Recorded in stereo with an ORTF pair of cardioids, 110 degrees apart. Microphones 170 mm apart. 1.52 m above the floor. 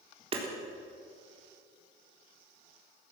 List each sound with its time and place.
0.3 s hammering: 35° right, 3.5 m